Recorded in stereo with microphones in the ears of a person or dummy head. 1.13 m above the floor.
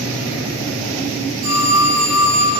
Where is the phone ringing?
65° right (ahead or behind), 1.3 m.